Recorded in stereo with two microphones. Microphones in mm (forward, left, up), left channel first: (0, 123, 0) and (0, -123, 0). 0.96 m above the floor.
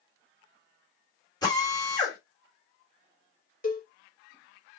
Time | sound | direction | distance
1.4 | a drill | 15° left (ahead or behind) | 3.5 m
3.6 | a cowbell | 35° left (ahead or behind) | 2.5 m